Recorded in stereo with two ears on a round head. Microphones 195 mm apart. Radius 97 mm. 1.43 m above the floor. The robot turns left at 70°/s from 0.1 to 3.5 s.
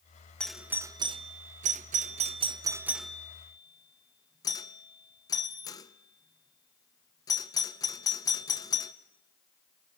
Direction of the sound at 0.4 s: 5° left (ahead or behind).